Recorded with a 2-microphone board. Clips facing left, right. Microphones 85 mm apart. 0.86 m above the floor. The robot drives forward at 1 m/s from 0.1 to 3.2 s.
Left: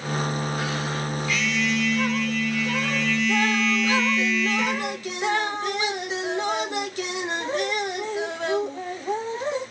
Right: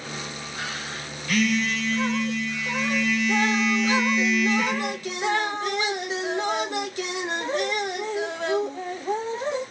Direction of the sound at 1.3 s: 55° right (ahead or behind).